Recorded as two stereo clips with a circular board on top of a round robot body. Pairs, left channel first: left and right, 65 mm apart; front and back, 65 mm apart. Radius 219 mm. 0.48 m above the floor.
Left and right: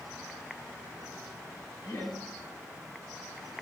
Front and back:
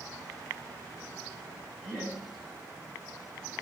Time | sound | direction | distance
1.8 | laughter | 85° left | 7.5 m